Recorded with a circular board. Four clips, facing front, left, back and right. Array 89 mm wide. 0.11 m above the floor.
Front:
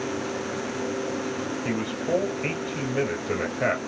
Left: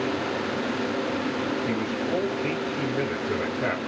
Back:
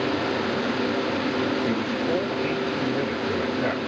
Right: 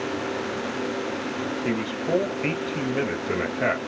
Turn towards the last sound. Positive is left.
turn(degrees=-55)